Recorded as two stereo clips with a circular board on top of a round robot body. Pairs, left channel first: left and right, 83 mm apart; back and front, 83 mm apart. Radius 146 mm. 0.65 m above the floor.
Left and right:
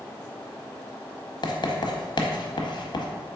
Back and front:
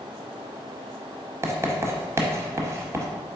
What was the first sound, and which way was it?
Writing, 60° left.